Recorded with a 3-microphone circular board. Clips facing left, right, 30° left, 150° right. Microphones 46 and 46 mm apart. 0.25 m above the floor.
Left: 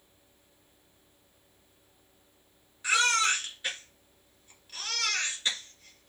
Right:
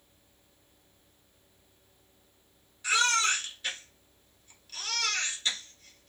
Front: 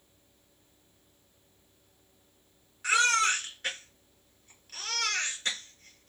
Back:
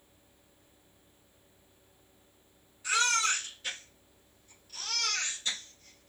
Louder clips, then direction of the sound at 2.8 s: Left 1 dB, front 4 dB; 20° left.